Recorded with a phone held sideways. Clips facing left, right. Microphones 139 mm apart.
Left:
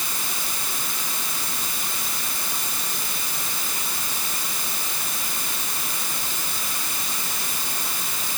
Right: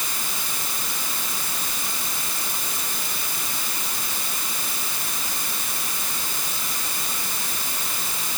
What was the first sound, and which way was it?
Only background noise.